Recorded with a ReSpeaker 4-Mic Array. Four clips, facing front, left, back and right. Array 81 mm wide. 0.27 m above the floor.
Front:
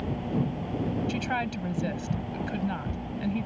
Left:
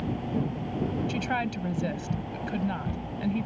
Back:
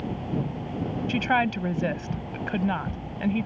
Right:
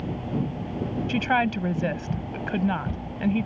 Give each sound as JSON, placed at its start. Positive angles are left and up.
{"t": 1.1, "sound": "a woman speaking", "azimuth_deg": -130}